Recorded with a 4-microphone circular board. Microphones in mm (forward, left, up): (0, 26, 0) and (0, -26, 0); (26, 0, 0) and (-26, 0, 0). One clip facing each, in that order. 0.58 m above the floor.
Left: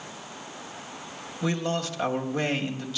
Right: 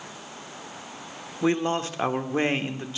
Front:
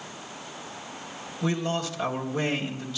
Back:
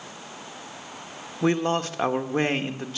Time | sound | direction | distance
1.4 | a man speaking | 145° right | 1.2 m